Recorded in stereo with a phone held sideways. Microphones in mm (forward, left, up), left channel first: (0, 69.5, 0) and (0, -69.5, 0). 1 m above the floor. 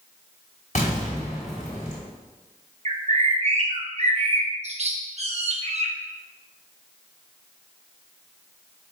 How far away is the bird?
About 0.6 m.